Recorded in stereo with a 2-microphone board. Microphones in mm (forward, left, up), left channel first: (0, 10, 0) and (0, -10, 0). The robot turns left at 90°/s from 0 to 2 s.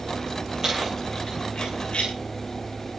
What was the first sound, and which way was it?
Keys jangling, 40° right (ahead or behind).